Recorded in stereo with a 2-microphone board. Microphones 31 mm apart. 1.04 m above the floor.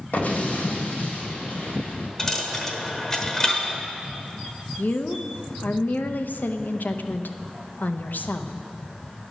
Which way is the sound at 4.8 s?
70° left (ahead or behind).